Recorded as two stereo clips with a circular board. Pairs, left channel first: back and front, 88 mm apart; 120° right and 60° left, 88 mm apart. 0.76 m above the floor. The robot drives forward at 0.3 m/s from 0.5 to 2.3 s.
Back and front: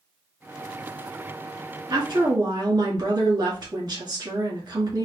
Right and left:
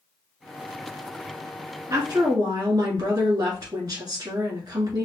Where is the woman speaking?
30° left, 1.8 m; by 5.0 s 35° left, 1.7 m.